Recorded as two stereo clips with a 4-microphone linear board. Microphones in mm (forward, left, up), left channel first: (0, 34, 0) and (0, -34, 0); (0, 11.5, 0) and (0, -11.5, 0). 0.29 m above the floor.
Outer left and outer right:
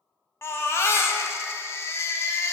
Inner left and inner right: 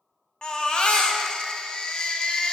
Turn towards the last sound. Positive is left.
turn(degrees=40)  # may be behind; listen again after turning